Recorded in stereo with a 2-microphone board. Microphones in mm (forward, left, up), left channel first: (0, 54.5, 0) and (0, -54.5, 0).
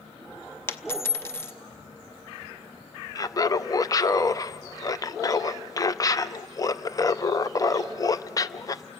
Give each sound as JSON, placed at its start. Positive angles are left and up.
{"t": 0.7, "sound": "a dropped coin", "side_deg": 20, "distance_m": 0.7}
{"t": 3.1, "sound": "laughter", "side_deg": 30, "distance_m": 0.5}